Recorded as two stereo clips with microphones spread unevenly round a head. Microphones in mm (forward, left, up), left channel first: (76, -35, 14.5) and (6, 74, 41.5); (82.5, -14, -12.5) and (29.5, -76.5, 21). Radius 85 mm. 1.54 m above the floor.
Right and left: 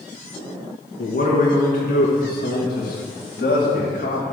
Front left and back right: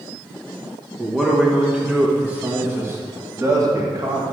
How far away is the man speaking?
About 2.5 m.